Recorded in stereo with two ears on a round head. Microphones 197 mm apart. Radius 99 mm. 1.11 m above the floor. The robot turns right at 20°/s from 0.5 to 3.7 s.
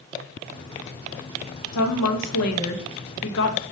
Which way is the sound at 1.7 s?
85° left.